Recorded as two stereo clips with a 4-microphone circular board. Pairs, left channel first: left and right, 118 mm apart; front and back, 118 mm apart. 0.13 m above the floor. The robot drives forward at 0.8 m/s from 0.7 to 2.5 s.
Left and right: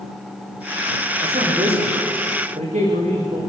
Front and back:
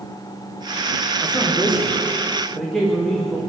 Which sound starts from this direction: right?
A man speaking, at 1.2 s.